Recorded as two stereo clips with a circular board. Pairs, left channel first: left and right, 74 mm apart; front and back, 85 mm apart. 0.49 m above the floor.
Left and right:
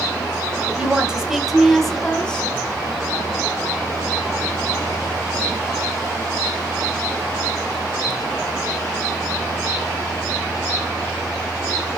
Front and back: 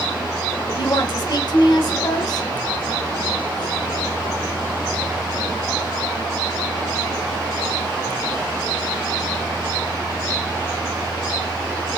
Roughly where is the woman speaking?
Ahead.